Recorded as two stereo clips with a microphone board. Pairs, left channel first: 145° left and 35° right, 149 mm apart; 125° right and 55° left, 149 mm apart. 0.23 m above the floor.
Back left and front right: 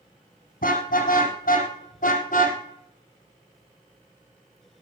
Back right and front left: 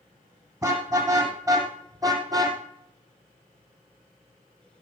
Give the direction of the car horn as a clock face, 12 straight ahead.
8 o'clock.